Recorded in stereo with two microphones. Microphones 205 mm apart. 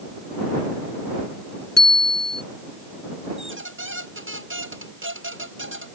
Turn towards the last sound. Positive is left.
turn(degrees=-75)  # may be behind; listen again after turning